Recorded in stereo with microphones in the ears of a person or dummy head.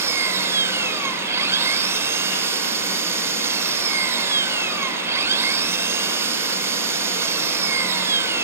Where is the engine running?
15° right (ahead or behind).